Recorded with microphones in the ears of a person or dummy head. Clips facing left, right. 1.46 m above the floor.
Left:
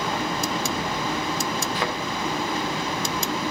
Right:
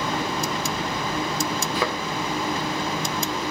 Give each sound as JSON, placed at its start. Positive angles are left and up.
{"t": 1.8, "sound": "a thud", "side_deg": -65, "distance_m": 2.5}